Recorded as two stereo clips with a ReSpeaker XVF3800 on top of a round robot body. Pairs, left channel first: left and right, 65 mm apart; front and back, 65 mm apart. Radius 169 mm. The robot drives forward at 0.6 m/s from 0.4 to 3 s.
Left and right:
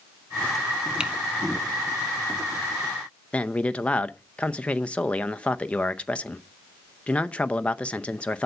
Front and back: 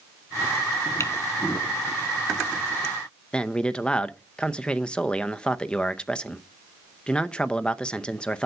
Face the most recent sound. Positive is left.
turn(degrees=50)